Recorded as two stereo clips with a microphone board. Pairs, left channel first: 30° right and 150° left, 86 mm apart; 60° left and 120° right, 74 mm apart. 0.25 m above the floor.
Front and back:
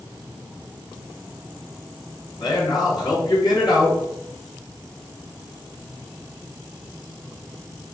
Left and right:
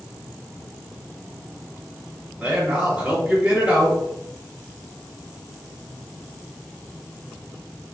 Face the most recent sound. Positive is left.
turn(degrees=-50)